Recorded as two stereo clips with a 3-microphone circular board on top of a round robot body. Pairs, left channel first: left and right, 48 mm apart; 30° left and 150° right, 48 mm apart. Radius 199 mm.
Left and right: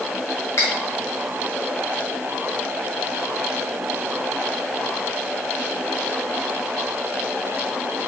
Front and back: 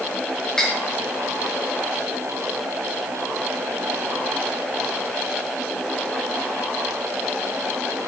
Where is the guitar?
No guitar in this recording.